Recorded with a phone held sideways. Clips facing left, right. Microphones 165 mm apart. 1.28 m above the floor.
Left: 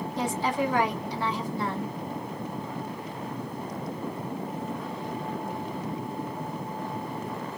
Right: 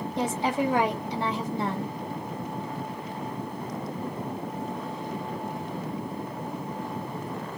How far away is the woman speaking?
About 1.7 m.